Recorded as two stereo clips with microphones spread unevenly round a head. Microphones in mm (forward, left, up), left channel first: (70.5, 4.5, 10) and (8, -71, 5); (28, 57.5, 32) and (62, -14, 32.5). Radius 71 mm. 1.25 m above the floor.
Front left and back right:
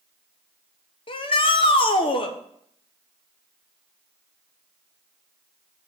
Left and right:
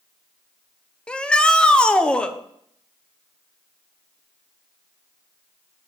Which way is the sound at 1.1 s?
40° left.